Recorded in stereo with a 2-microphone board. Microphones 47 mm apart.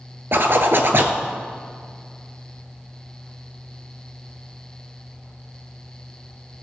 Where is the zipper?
55° right (ahead or behind), 0.7 m.